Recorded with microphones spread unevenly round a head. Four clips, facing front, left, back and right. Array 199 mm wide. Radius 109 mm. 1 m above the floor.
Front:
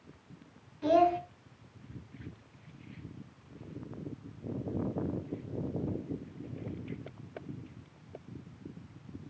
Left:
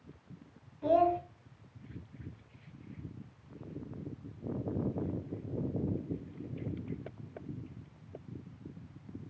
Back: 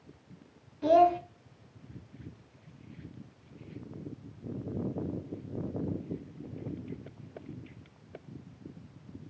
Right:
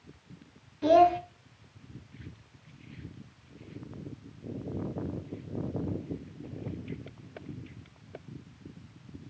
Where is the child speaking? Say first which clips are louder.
Right 6 dB, back 3 dB; 95° right, 1.7 m.